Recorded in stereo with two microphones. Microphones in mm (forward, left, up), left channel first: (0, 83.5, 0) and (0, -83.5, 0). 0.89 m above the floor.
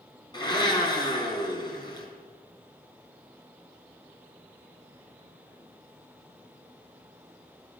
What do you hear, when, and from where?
0.3 s a blender: 25° left (ahead or behind), 4 m